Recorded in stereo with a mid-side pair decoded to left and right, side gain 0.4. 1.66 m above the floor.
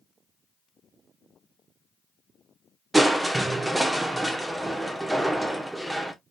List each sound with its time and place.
2.9 s crushing: 15° right, 1.2 m